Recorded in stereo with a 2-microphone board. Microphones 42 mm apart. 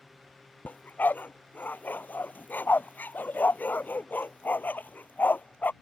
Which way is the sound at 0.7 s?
45° left (ahead or behind).